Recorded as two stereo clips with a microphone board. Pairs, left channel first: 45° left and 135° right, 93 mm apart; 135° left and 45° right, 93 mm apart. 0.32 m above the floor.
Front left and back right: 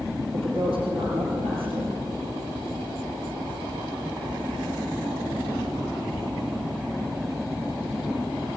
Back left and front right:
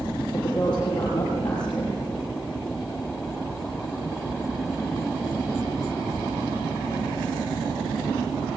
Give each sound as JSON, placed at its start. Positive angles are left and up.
{"t": 0.3, "sound": "a woman speaking", "azimuth_deg": -145, "distance_m": 7.0}